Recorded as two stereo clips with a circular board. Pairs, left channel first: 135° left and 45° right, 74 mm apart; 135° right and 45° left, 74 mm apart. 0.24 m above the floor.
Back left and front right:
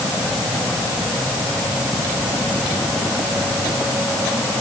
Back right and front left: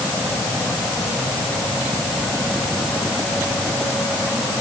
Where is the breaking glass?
I don't hear breaking glass.